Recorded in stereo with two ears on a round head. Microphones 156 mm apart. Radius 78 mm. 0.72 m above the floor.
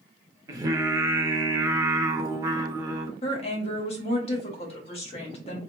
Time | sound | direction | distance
0.5 | singing | 20° right (ahead or behind) | 0.5 m
3.2 | a woman speaking | 35° left (ahead or behind) | 1.2 m